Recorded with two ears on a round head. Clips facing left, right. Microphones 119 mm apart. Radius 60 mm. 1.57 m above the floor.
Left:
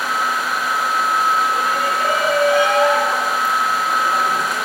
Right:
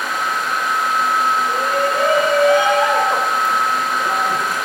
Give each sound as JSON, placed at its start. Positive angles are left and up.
{"t": 1.5, "sound": "a shout", "side_deg": -30, "distance_m": 7.0}